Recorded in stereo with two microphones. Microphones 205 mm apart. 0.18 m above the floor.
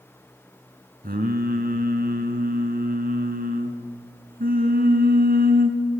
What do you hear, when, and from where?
1.0 s singing: 50° right (ahead or behind), 2.5 m